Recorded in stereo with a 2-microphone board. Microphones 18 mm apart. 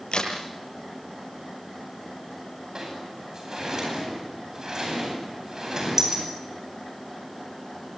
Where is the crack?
65° left (ahead or behind), 8.5 m.